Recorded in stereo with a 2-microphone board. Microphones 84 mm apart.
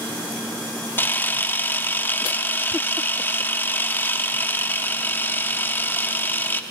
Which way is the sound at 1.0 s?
25° left (ahead or behind).